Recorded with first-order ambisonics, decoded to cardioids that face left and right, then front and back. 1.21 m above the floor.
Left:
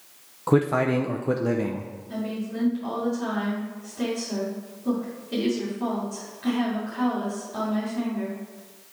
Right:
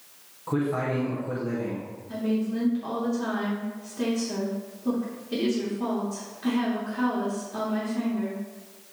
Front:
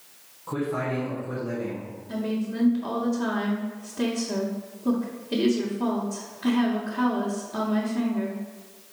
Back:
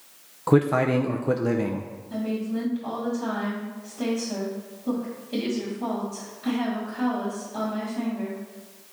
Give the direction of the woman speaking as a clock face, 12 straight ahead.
12 o'clock.